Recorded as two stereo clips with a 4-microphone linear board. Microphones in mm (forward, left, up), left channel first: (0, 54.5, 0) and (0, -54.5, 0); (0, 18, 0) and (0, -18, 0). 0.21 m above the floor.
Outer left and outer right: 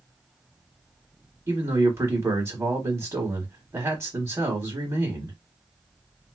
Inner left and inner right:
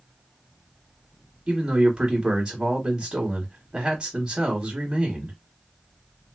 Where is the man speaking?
25° right (ahead or behind), 1.1 m.